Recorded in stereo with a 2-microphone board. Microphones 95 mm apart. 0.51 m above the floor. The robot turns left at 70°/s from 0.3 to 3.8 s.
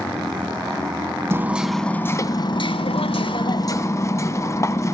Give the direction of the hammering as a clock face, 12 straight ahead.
5 o'clock.